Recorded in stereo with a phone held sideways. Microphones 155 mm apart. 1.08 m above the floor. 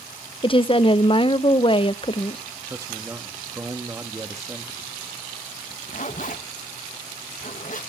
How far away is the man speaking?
About 1.4 m.